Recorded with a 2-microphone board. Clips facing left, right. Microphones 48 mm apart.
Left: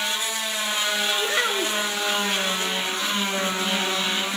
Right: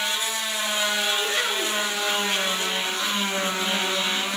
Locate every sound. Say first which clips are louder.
1.2 s a child speaking: left 2 dB; 20° left (ahead or behind), 1.2 m